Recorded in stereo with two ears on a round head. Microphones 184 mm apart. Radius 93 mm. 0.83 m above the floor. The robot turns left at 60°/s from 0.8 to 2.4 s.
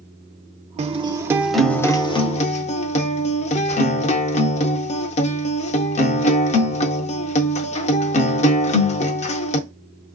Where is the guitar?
135° right, 0.5 m; by 9.6 s 130° left, 0.5 m.